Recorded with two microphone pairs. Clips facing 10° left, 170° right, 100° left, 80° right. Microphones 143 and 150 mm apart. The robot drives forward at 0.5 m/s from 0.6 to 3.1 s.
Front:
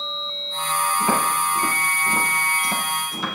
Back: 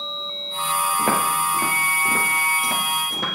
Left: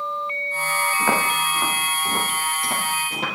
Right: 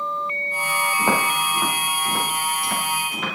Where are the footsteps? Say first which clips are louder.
Even, right 1 dB; 150° right, 3.5 m; by 3.4 s 155° left, 4 m.